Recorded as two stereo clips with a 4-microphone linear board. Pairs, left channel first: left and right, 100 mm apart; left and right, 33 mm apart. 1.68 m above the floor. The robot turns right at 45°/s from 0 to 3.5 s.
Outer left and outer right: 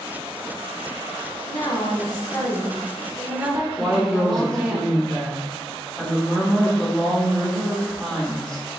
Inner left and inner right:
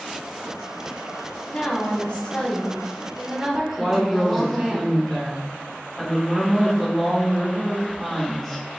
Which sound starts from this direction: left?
A woman speaking, at 1.5 s.